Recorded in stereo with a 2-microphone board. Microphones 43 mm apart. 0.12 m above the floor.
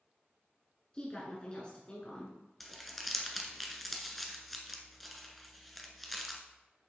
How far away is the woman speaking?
About 1.4 m.